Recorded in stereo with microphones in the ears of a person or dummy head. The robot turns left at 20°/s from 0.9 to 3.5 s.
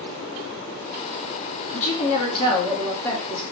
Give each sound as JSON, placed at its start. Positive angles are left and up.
{"t": 1.7, "sound": "a woman speaking", "azimuth_deg": 40, "distance_m": 1.1}